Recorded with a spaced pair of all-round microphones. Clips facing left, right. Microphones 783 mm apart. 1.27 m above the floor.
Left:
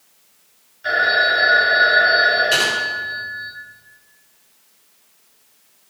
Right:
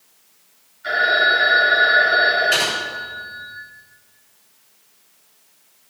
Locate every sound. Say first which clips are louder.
0.8 s a phone ringing: even; 85° left, 6.5 m
2.5 s typing on a keyboard: left 1 dB; 80° left, 6 m